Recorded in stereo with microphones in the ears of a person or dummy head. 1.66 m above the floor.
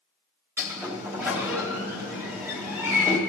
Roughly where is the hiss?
I don't hear a hiss.